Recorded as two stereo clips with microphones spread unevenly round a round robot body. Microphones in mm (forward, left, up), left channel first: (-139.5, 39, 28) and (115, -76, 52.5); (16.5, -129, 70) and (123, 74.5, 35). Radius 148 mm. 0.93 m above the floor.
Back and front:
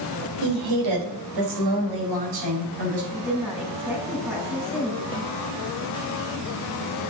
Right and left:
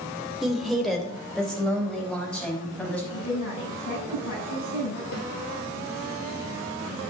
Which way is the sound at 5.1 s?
95° right.